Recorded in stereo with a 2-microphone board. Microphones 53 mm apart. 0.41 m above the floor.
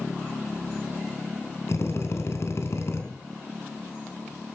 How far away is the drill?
About 4 m.